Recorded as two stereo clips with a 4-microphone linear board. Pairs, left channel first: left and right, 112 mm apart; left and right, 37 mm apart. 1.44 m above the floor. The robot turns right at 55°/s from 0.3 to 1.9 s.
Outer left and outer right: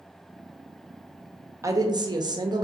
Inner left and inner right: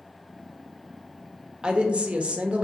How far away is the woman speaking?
About 0.6 m.